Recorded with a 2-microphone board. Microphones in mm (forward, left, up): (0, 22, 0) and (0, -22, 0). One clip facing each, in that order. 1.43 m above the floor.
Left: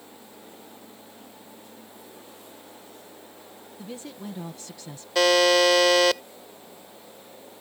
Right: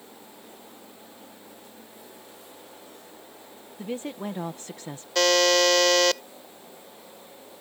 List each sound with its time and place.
3.8 s a woman speaking: 40° right (ahead or behind)
5.2 s a buzzer: 10° left (ahead or behind)